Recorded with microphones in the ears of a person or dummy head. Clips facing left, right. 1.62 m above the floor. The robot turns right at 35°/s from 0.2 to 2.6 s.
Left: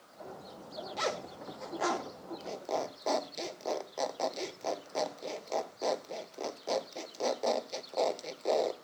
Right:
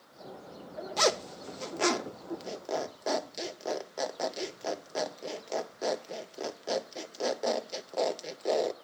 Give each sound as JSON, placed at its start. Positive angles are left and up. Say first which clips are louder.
{"t": 1.0, "sound": "a zipper", "louder": "right 8 dB", "side_deg": -70, "distance_m": 0.7}